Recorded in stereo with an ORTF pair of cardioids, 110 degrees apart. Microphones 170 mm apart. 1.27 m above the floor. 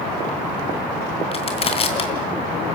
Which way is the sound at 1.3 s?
35° left.